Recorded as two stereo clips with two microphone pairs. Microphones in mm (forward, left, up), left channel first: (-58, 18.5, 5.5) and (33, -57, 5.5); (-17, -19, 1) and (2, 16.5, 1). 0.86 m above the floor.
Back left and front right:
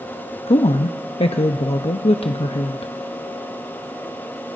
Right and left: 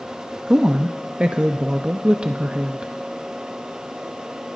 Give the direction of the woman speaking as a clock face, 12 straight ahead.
8 o'clock.